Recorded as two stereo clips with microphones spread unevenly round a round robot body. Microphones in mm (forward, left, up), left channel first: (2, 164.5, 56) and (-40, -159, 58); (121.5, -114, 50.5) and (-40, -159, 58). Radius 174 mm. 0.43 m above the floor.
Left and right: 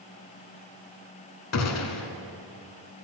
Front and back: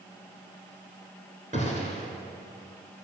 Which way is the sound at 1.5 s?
125° left.